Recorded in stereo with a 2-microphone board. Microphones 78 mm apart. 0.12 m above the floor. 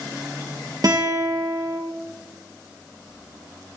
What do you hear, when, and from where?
0.8 s a guitar: 55° right (ahead or behind), 3.5 m